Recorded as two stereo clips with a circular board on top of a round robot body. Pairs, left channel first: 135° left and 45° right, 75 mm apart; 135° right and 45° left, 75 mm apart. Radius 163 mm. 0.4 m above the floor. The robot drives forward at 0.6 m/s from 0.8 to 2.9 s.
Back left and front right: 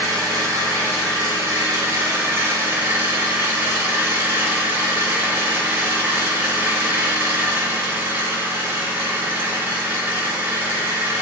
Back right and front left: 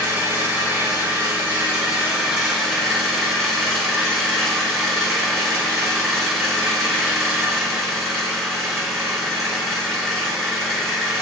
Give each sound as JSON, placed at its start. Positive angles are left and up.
{"t": 0.0, "sound": "an engine running", "azimuth_deg": -10, "distance_m": 1.9}